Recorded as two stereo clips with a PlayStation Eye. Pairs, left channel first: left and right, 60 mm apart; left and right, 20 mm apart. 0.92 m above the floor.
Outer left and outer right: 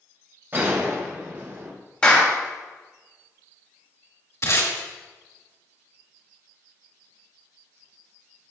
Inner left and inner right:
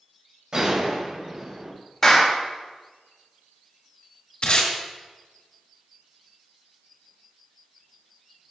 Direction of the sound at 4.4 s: 55° left (ahead or behind).